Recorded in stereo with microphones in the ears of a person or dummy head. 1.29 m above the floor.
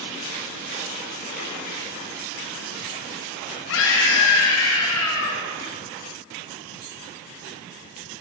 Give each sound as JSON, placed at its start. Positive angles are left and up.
{"t": 3.7, "sound": "a scream", "side_deg": 75, "distance_m": 2.0}